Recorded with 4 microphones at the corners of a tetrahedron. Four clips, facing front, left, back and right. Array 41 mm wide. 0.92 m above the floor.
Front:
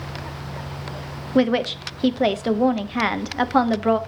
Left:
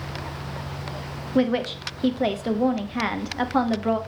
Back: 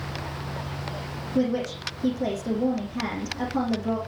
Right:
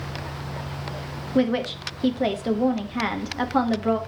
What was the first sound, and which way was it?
A woman speaking, 5° left.